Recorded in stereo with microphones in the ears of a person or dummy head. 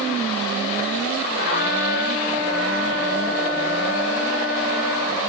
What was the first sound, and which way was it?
A trumpet, 60° left (ahead or behind).